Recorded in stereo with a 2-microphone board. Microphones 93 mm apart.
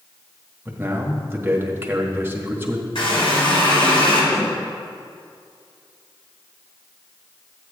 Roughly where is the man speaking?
Right.